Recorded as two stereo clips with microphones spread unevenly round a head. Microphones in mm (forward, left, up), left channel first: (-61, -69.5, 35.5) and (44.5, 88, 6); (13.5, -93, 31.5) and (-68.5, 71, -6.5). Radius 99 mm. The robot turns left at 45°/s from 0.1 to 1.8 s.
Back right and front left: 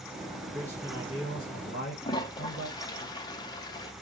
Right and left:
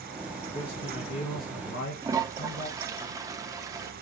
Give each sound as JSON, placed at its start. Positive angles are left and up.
{"t": 0.5, "sound": "a man speaking", "azimuth_deg": -20, "distance_m": 1.9}
{"t": 2.0, "sound": "a toilet flushing", "azimuth_deg": -165, "distance_m": 0.5}